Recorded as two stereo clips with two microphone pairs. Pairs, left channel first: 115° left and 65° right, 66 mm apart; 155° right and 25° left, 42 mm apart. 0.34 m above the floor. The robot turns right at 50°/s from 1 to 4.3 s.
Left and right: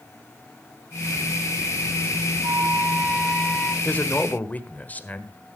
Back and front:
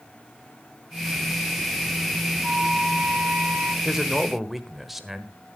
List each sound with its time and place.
2.4 s a flute: 30° right, 0.7 m; by 3.8 s 40° left, 0.7 m
3.9 s a man speaking: 85° left, 1.2 m; by 5.3 s 105° left, 1.2 m